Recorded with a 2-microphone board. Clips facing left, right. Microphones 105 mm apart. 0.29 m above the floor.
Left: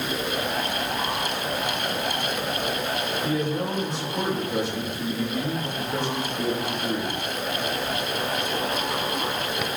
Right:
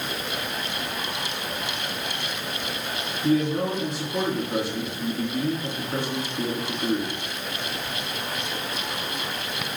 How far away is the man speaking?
About 2.5 m.